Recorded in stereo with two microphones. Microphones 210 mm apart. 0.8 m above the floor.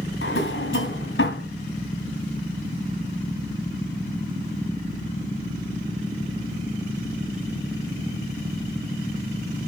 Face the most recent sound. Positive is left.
turn(degrees=80)